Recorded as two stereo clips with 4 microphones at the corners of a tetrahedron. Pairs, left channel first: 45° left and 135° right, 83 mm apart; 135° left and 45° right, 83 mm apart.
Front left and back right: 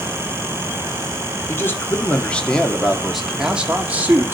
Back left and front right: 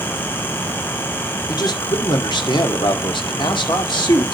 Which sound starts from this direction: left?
A man speaking, at 1.5 s.